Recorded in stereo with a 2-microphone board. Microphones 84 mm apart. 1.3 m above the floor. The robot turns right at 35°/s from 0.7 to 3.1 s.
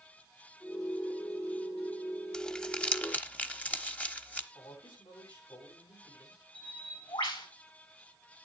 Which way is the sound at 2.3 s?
10° left (ahead or behind).